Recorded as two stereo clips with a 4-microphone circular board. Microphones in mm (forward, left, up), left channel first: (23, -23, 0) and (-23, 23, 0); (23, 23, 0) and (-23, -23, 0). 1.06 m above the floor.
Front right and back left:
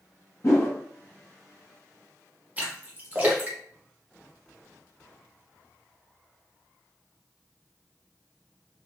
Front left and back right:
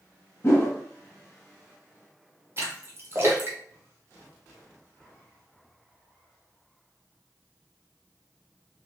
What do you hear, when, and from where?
0.4 s a whoosh: 5° right, 1.0 m
2.6 s a splash: 165° right, 0.9 m